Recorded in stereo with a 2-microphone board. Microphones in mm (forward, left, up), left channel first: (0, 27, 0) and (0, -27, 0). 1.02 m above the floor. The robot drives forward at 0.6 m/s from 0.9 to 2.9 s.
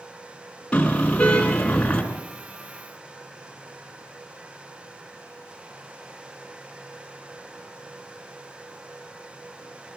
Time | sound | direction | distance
0.7 | a car horn | 20° left (ahead or behind) | 5.5 m